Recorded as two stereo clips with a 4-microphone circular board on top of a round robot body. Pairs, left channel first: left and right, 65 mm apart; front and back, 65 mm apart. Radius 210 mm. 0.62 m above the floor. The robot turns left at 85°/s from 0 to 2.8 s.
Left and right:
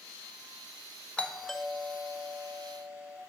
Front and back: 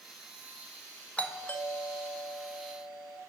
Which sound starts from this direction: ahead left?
A doorbell, at 1.2 s.